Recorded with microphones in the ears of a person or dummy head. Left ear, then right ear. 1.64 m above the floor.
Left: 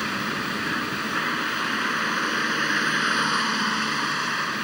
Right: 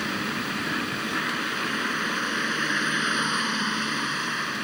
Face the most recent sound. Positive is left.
turn(degrees=20)  # may be behind; listen again after turning